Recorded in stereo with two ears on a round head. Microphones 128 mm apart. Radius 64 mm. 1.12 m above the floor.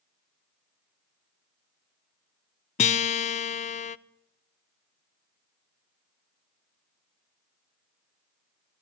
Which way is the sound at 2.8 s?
50° left (ahead or behind).